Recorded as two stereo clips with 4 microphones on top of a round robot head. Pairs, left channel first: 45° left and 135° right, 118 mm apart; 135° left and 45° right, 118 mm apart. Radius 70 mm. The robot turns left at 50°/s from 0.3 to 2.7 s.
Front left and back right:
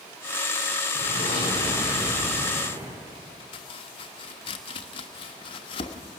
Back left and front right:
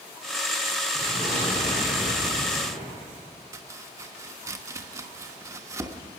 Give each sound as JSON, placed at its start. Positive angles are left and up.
{"t": 0.9, "sound": "an explosion", "azimuth_deg": 15, "distance_m": 7.0}
{"t": 3.5, "sound": "chopping", "azimuth_deg": 15, "distance_m": 1.2}